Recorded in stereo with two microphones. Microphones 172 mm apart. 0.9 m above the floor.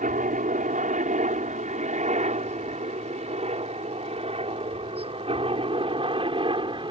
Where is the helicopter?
50° right (ahead or behind); by 6.9 s 30° right (ahead or behind).